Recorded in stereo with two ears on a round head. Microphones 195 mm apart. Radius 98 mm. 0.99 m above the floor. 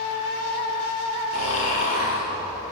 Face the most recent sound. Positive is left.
turn(degrees=70)  # may be behind; listen again after turning